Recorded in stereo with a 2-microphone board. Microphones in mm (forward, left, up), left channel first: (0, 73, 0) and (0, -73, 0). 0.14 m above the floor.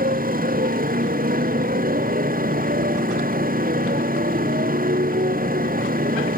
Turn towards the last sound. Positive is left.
turn(degrees=-75)  # may be behind; listen again after turning